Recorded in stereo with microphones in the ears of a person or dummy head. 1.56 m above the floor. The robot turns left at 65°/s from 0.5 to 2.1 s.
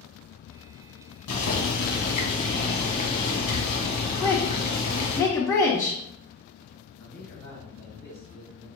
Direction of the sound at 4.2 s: 10° left (ahead or behind).